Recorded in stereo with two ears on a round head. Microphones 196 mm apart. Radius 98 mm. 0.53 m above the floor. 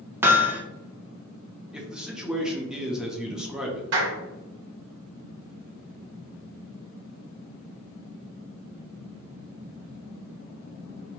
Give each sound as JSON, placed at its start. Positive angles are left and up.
{"t": 0.2, "sound": "hammering", "side_deg": -10, "distance_m": 0.5}
{"t": 1.7, "sound": "a man speaking", "side_deg": -5, "distance_m": 0.7}
{"t": 3.9, "sound": "a clap", "side_deg": -55, "distance_m": 1.2}